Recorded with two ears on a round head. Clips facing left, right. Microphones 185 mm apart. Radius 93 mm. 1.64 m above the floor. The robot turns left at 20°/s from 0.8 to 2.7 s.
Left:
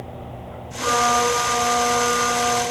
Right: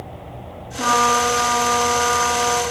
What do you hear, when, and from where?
0.8 s a trumpet: 115° right, 6.5 m; by 2.6 s 150° right, 6.5 m